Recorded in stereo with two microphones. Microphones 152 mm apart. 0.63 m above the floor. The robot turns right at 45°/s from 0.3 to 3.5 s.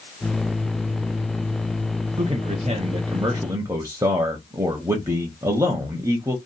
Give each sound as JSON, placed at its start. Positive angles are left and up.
{"t": 2.2, "sound": "a man speaking", "azimuth_deg": -95, "distance_m": 0.7}